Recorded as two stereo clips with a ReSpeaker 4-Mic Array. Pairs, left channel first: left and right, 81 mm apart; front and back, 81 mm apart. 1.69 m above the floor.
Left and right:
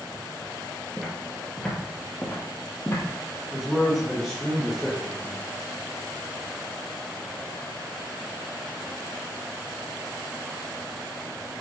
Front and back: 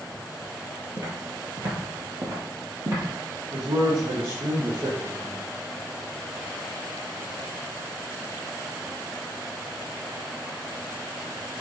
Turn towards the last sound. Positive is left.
turn(degrees=180)